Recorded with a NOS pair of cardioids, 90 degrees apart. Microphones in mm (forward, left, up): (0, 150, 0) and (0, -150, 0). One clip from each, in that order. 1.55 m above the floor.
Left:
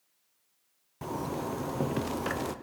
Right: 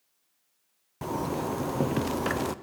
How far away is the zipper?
About 0.5 m.